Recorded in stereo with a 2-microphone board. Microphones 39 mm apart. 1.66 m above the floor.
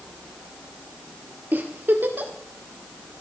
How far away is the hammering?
I don't hear hammering.